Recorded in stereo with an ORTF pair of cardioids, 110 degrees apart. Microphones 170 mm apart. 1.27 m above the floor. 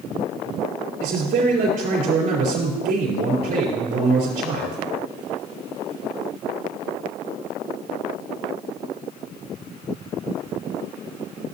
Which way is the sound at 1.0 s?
65° right.